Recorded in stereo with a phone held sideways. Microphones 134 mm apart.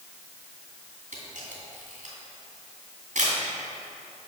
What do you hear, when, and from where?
1.1 s a camera shutter: 70° right (ahead or behind), 2.5 m